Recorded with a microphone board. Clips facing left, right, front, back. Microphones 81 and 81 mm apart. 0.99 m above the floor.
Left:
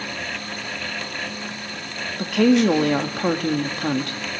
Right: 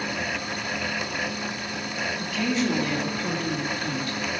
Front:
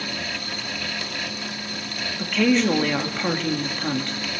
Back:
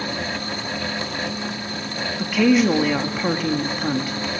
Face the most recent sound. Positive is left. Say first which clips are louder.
# left 11 dB, back 3 dB
turn(degrees=100)